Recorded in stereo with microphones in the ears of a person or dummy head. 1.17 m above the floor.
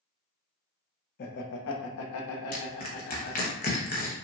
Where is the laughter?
45° left (ahead or behind), 0.9 m; by 3.5 s 55° left (ahead or behind), 1.7 m.